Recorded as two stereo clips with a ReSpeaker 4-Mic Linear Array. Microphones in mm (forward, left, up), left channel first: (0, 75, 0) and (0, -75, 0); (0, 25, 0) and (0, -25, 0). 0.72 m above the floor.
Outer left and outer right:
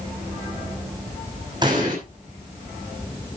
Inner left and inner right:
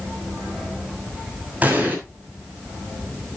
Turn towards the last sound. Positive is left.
turn(degrees=-30)  # may be behind; listen again after turning